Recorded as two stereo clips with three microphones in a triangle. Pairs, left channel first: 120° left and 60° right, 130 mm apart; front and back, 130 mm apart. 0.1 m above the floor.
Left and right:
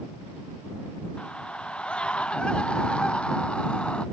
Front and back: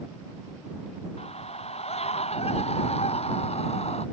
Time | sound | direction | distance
1.2 | a scream | 35° left | ?